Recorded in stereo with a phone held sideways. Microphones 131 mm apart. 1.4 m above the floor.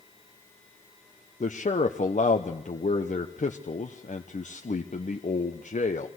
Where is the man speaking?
70° left (ahead or behind), 0.9 m.